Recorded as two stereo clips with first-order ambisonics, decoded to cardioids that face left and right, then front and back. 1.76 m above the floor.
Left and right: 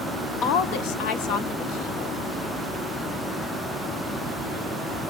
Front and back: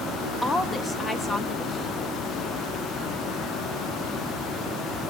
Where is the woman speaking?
75° left, 1.2 m.